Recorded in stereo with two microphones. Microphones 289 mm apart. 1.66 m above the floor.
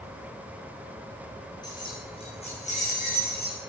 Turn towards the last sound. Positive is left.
turn(degrees=35)  # may be behind; listen again after turning